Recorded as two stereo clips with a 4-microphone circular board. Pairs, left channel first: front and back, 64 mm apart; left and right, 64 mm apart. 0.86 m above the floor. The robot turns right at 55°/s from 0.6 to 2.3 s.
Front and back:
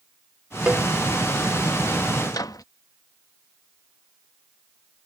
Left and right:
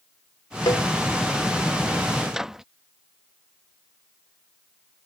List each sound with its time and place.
0.7 s a cowbell: 105° left; by 0.9 s 115° left
2.3 s a microwave: 10° right